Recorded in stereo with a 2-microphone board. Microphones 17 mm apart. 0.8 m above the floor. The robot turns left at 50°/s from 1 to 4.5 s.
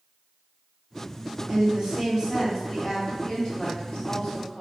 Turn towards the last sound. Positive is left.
turn(degrees=90)